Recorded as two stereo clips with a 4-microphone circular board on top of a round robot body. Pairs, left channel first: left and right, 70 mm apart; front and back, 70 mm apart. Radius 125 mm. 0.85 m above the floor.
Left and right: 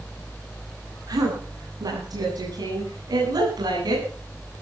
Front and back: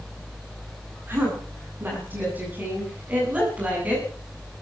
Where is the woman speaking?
120° right, 9.5 m; by 4.0 s 110° right, 9 m.